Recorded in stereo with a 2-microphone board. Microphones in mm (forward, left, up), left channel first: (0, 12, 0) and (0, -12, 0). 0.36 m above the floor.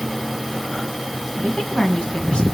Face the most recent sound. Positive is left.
turn(degrees=45)  # may be behind; listen again after turning